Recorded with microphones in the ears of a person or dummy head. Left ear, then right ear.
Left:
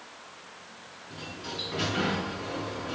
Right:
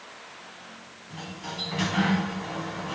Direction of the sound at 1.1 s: 35° right (ahead or behind).